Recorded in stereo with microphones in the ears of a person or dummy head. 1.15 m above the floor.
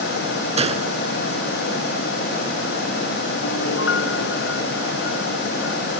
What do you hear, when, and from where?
0.6 s a gunshot: 30° right (ahead or behind)
3.4 s a piano: 75° left (ahead or behind)